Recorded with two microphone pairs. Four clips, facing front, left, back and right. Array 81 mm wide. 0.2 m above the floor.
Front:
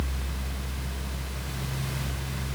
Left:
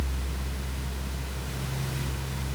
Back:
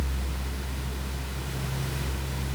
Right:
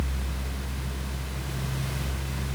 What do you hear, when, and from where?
Only background noise.